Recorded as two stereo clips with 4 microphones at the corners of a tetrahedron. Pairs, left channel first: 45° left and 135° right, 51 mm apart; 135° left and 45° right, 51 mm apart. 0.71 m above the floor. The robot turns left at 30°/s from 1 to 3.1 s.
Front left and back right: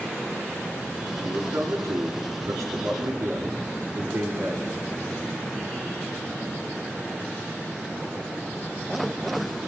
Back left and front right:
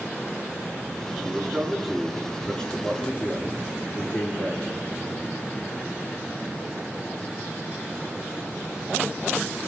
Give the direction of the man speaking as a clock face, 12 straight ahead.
4 o'clock.